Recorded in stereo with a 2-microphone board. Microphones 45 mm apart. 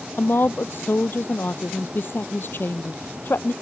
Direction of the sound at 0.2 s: 50° left (ahead or behind).